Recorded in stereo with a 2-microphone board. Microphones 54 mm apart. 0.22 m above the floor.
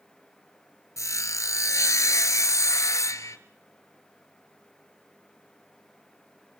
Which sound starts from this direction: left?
Sawing, at 1.0 s.